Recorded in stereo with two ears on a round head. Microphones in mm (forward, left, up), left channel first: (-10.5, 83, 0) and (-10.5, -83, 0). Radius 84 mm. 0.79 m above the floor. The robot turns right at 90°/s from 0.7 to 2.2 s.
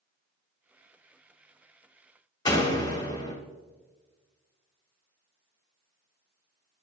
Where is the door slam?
20° left (ahead or behind), 1.1 m.